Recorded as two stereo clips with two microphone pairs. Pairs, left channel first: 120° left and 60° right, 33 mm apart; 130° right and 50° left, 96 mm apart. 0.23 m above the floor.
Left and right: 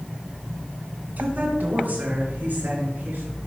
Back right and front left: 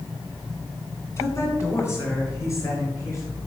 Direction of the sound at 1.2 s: 75° right.